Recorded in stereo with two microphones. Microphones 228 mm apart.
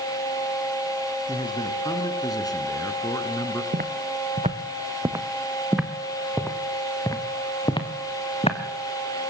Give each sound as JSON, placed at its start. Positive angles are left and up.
{"t": 1.3, "sound": "a man speaking", "side_deg": 20, "distance_m": 3.5}
{"t": 3.7, "sound": "footsteps", "side_deg": -40, "distance_m": 1.8}